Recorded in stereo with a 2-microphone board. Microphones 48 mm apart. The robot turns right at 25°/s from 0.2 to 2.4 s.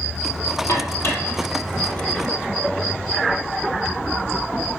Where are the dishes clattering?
60° left (ahead or behind), 2.5 m; by 2.3 s 30° left (ahead or behind), 2.5 m.